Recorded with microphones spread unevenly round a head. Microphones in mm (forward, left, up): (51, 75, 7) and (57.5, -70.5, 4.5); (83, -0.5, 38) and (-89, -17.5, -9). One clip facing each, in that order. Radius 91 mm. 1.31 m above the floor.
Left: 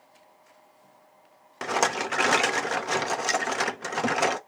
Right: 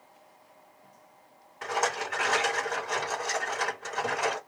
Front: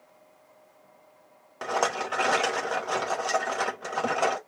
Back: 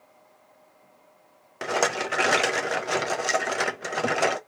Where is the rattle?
115° left, 0.7 m.